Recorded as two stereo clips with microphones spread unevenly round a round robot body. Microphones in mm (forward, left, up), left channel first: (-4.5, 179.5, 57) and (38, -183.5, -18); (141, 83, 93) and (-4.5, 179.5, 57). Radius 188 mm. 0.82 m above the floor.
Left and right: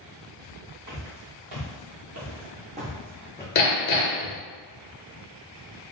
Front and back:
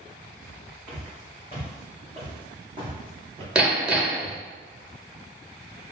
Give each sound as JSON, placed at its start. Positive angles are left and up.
{"t": 0.9, "sound": "footsteps", "azimuth_deg": -115, "distance_m": 1.6}
{"t": 3.5, "sound": "hammering", "azimuth_deg": 55, "distance_m": 0.7}